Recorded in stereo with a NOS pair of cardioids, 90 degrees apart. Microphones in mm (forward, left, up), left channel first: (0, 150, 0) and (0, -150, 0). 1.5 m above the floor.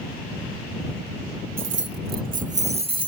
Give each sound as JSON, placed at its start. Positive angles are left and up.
{"t": 1.6, "sound": "keys jangling", "azimuth_deg": -45}